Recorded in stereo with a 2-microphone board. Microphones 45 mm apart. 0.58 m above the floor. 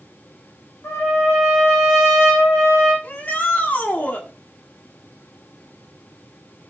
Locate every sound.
0.8 s a trumpet: 80° left, 5.5 m
3.0 s a shout: 40° left (ahead or behind), 1.4 m